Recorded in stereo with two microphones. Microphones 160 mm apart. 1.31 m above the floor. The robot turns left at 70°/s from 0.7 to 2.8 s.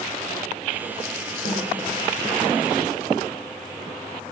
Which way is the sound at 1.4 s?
70° left (ahead or behind).